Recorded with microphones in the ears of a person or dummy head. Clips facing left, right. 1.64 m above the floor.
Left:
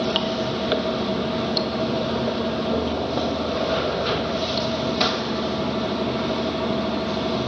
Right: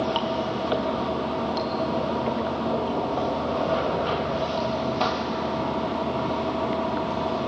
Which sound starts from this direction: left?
Running water, at 0.0 s.